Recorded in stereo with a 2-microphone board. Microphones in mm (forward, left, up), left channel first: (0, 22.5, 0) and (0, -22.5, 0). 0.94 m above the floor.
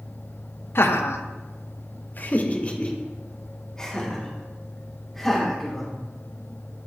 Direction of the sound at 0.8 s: 55° left (ahead or behind).